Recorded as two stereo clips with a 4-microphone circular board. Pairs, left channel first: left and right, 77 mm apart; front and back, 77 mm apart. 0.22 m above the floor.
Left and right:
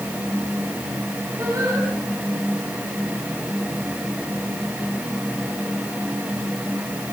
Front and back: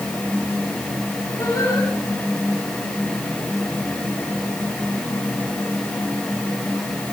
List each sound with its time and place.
1.4 s singing: 45° right, 10 m